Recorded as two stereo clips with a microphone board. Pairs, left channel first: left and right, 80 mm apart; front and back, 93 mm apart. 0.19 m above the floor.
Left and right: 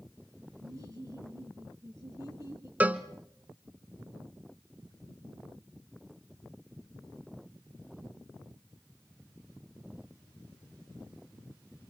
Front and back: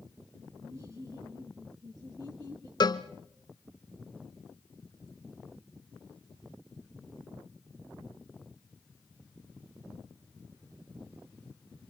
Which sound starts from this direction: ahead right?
A cowbell, at 2.8 s.